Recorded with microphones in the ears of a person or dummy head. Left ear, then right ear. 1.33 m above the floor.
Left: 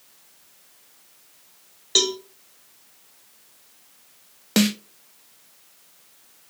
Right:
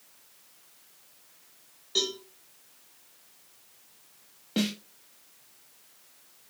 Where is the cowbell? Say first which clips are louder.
Left 8 dB; 30° left (ahead or behind), 0.7 m.